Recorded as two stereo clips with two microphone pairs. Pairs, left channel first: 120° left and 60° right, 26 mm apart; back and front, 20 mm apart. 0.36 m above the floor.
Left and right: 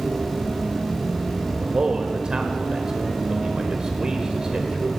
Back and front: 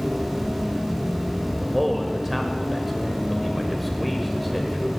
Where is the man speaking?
95° right, 1.1 m.